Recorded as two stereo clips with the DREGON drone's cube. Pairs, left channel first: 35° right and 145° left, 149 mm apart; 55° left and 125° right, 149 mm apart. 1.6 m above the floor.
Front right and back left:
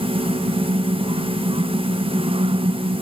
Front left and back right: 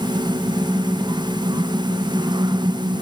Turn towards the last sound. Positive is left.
No sound to turn to.